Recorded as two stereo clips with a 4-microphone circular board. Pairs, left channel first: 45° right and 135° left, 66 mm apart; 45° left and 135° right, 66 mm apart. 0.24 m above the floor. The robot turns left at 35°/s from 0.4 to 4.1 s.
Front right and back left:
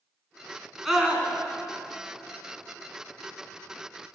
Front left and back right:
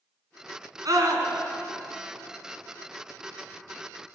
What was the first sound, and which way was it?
A scream, 140° right.